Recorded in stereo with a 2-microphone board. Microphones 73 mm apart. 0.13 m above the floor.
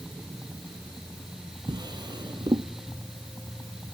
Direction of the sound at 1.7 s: 75° right (ahead or behind).